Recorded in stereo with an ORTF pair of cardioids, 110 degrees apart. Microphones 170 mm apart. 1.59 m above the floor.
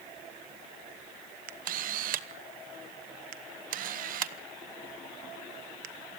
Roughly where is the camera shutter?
Ahead right.